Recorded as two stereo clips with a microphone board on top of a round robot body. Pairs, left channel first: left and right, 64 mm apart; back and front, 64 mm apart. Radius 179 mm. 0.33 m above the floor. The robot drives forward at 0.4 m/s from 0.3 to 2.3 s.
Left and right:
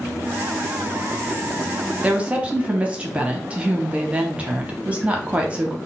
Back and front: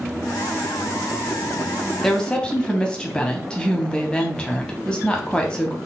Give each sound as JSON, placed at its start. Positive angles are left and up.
{"t": 2.0, "sound": "a woman speaking", "azimuth_deg": -110, "distance_m": 1.0}